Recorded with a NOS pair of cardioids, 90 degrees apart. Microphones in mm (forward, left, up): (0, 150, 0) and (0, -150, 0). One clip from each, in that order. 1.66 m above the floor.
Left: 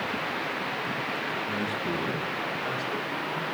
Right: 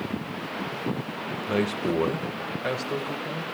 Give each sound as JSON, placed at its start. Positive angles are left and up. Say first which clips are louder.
{"t": 1.5, "sound": "a man speaking", "louder": "right 3 dB", "azimuth_deg": -70, "distance_m": 2.5}